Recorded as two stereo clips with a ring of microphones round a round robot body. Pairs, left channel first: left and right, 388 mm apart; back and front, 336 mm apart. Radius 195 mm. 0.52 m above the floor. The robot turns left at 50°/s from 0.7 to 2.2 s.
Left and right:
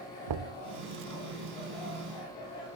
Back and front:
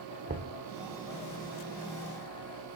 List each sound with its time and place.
0.3 s knocking: 65° right, 0.8 m